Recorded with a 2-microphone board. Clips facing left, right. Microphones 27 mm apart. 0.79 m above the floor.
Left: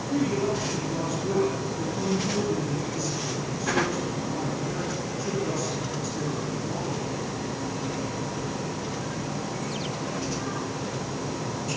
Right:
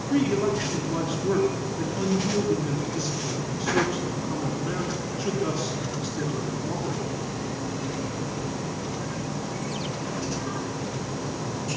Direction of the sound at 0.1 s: 35° right (ahead or behind).